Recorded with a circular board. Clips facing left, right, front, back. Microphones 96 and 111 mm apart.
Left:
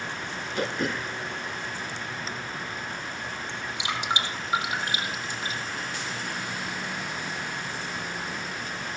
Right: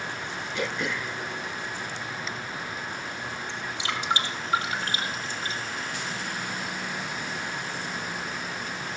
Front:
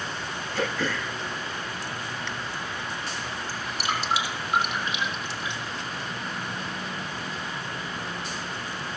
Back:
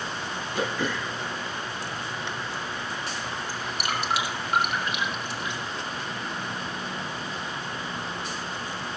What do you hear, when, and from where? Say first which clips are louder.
0.6 s throat clearing: left 2 dB, even; 115° left, 0.5 m
3.5 s dripping: even, front 2 dB; 155° left, 4 m